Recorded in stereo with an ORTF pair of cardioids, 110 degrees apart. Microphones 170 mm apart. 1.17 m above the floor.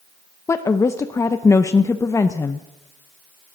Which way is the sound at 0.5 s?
15° left.